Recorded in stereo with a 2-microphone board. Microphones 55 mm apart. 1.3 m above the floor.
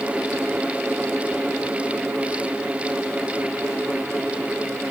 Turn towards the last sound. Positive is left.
No sound to turn to.